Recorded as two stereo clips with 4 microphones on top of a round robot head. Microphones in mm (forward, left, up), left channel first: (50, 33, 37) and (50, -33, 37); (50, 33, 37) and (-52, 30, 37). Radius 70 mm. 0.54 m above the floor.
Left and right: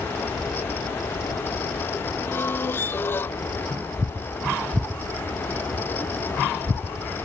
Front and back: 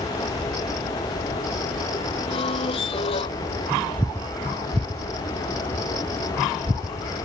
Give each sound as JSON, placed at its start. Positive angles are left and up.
{"t": 2.3, "sound": "a squeak", "azimuth_deg": 35}